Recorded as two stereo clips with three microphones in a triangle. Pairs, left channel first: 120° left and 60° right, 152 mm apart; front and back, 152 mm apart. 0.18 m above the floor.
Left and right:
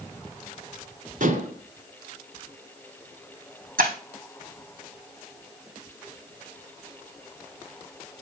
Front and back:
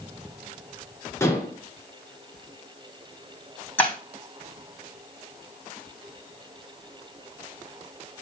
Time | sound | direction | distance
1.2 | dishes clattering | 70° right | 1.7 m
3.8 | breaking glass | 80° right | 3 m